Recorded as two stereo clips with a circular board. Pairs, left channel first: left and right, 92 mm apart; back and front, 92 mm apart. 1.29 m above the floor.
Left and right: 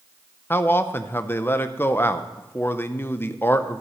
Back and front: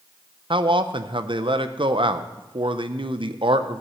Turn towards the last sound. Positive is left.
turn(degrees=25)